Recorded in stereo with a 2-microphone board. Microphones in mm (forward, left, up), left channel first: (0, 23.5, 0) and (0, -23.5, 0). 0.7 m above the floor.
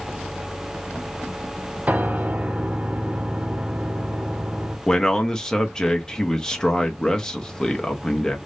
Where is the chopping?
No chopping in this recording.